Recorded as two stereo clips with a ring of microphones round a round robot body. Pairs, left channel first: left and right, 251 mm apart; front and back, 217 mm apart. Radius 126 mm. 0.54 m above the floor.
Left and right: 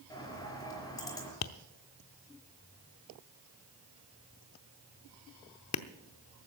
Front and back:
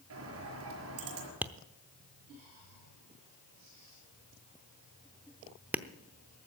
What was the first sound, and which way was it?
A bird, 165° left.